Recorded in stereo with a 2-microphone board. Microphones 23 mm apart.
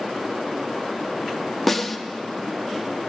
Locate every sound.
1.7 s a snare drum: 5° left (ahead or behind), 0.6 m